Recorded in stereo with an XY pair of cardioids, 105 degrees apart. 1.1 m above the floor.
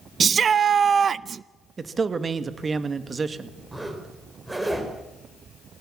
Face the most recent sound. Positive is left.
turn(degrees=-10)